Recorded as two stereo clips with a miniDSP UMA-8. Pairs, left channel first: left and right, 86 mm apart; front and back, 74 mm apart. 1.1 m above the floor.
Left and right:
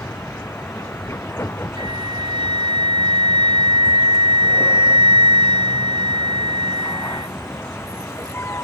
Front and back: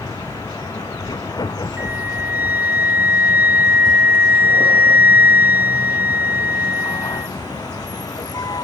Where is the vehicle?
30° left.